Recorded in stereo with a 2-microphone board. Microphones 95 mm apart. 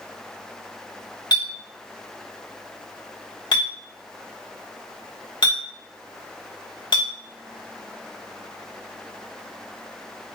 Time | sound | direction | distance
1.3 | a clink | 60° left (ahead or behind) | 1.1 m